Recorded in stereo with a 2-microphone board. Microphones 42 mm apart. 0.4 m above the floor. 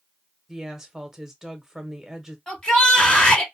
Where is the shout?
20° left (ahead or behind), 2 m.